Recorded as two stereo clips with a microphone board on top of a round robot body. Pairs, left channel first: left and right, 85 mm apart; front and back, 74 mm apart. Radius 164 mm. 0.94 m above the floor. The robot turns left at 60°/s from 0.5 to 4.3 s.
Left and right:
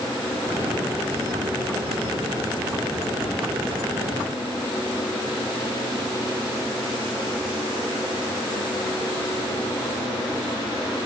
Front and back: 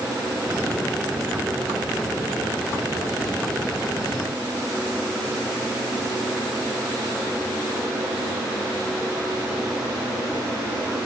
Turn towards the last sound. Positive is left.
No sound to turn to.